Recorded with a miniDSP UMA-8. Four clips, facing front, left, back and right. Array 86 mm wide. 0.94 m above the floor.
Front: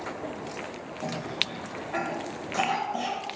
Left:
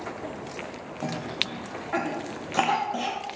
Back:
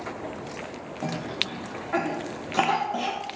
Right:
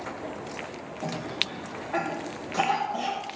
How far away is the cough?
About 1.2 m.